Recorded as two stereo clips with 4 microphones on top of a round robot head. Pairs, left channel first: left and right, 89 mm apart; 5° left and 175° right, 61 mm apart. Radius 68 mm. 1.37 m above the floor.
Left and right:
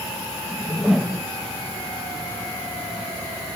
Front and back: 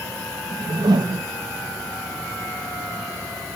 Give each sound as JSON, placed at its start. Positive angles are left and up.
{"t": 0.5, "sound": "a whoosh", "azimuth_deg": 180, "distance_m": 0.7}